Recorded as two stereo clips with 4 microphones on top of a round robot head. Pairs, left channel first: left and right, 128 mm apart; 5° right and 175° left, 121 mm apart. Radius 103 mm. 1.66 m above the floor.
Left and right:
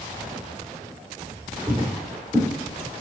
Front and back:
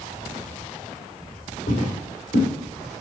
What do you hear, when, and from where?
1.7 s footsteps: 20° right, 4 m